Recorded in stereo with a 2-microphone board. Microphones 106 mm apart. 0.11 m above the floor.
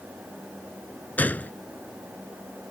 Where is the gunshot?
15° left (ahead or behind).